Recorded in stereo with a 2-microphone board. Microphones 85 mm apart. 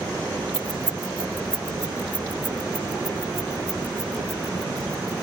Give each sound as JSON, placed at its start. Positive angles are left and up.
{"t": 0.5, "sound": "keys jangling", "side_deg": -70}